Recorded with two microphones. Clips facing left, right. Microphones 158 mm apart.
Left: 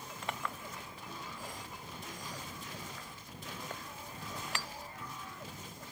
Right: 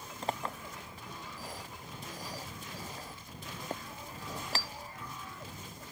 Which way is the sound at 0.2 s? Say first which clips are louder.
Right 4 dB; 35° right (ahead or behind).